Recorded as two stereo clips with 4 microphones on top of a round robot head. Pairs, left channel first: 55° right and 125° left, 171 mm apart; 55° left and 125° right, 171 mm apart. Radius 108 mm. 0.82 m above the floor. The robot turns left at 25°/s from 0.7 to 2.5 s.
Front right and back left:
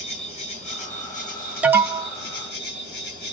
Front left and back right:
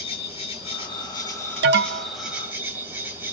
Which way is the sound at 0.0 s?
Straight ahead.